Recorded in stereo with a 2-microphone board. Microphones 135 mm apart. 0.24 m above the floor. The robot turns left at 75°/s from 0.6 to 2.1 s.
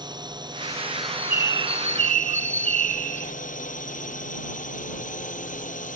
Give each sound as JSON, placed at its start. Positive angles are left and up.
{"t": 0.0, "sound": "a drone", "azimuth_deg": -145}
{"t": 1.0, "sound": "a bird", "azimuth_deg": 5}